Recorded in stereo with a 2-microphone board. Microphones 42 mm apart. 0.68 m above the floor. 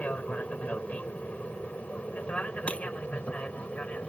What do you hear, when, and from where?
0.0 s an aircraft: 35° left (ahead or behind)
2.7 s breaking glass: 30° left (ahead or behind)